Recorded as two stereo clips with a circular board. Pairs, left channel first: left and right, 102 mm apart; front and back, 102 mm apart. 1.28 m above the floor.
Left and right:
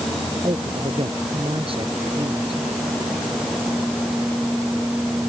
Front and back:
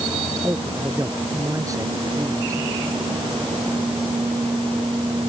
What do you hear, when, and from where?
0.4 s a man speaking: 125° right